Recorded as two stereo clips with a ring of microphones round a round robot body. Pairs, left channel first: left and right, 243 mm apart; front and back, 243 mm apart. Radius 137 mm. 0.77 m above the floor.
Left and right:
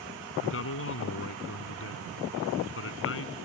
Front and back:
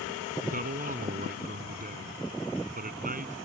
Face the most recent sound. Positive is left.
turn(degrees=125)